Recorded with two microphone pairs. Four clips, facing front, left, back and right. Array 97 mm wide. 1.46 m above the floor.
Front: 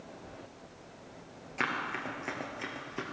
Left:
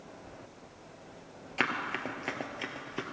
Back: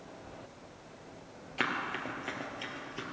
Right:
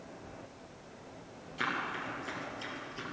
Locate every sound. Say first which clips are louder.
1.6 s running footsteps: left 3 dB, even; 105° left, 2.0 m; by 3.0 s 60° left, 2 m